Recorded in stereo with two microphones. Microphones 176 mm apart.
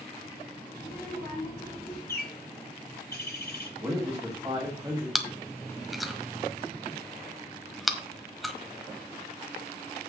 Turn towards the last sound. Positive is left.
turn(degrees=0)  # may be behind; listen again after turning